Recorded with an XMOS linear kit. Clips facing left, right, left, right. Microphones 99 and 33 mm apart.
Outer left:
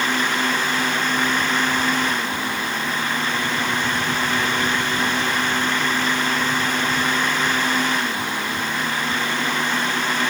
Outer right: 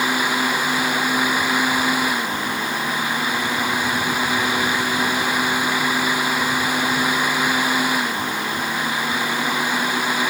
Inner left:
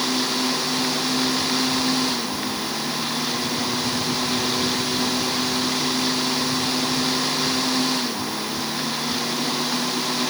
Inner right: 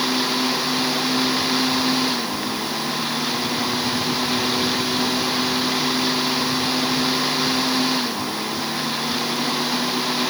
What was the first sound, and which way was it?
Only background noise.